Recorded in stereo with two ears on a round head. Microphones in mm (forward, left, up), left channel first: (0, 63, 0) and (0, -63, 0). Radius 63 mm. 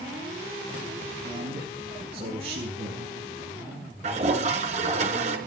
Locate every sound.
1.2 s a man speaking: 35° right (ahead or behind), 7.5 m; by 3.1 s 45° right (ahead or behind), 7 m
4.0 s a toilet flushing: 50° right (ahead or behind), 5 m